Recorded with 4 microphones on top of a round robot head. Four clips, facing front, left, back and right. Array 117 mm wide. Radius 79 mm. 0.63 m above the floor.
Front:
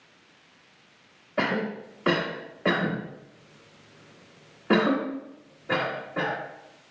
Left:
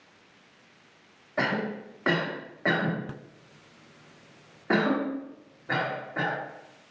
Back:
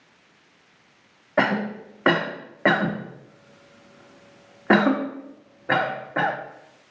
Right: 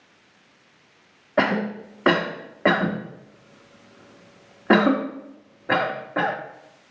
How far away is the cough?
About 1.2 m.